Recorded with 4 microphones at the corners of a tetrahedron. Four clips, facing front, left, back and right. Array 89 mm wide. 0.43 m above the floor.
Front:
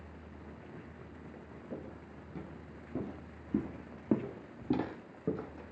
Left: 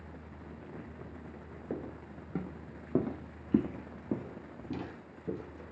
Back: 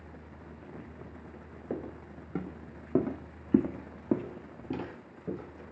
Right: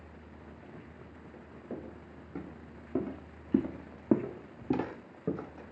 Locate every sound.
1.7 s footsteps: 145° left, 1.7 m; by 5.7 s 55° right, 1.5 m